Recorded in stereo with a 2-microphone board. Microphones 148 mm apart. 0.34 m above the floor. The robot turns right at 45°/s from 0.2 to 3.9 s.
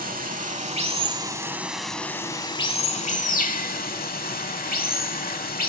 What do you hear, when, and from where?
0.0 s running water: 75° right, 0.7 m; by 5.7 s 95° left, 0.7 m